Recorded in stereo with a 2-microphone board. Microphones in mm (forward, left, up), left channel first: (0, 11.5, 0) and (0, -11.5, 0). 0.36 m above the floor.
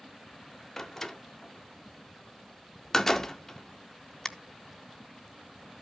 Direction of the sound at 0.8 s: 20° left (ahead or behind).